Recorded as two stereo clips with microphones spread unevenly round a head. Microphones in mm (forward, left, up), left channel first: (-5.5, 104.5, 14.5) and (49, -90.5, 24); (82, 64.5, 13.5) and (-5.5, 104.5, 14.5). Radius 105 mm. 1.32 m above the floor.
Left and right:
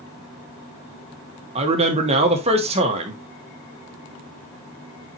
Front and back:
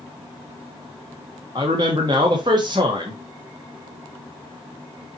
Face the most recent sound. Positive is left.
turn(degrees=-135)